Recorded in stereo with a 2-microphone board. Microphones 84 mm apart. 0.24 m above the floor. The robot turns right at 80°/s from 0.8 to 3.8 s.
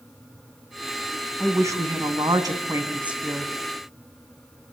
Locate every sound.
1.4 s a woman speaking: 155° right, 2.5 m; by 3.5 s 20° left, 2.5 m